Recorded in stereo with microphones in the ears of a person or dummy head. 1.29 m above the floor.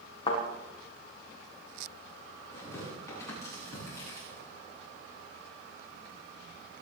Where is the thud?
30° left (ahead or behind), 6 m.